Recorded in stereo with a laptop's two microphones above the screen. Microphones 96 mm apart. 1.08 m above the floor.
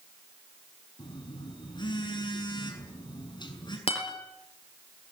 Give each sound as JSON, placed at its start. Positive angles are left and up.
{"t": 1.0, "sound": "a phone buzzing", "side_deg": 50, "distance_m": 6.5}
{"t": 3.9, "sound": "a guitar", "side_deg": 75, "distance_m": 6.0}